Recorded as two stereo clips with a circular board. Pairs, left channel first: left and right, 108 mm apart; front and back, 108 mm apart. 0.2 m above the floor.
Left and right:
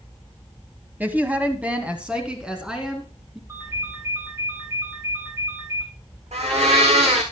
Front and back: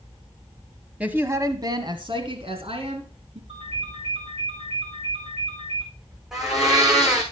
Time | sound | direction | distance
1.0 | a woman speaking | 125° right | 1.2 m
3.5 | a ringtone | 155° right | 4 m
6.3 | a blender | 95° right | 5.5 m